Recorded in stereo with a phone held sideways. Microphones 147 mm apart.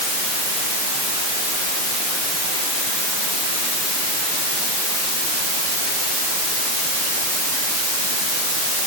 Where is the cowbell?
I don't hear a cowbell.